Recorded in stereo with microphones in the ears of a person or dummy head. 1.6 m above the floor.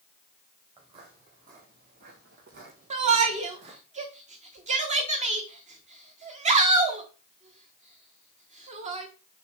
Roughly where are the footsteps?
Right.